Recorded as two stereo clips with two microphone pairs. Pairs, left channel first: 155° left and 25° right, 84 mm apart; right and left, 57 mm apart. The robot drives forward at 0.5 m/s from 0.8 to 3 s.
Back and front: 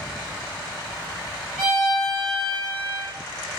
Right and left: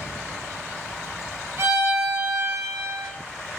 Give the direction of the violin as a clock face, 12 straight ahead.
10 o'clock.